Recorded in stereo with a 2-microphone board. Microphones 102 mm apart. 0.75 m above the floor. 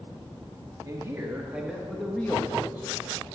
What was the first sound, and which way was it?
A man speaking, 30° right (ahead or behind).